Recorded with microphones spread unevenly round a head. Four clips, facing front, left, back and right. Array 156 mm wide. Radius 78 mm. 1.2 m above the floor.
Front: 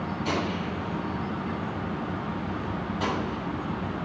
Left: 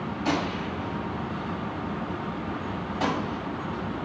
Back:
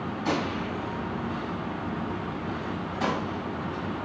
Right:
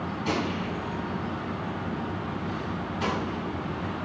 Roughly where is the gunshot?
Left.